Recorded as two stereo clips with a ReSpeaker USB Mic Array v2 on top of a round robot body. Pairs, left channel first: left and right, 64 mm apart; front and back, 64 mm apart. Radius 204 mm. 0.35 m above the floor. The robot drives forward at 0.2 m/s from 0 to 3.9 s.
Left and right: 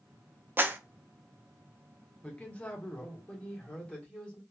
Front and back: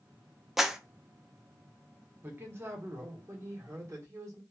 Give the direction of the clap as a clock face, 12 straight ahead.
3 o'clock.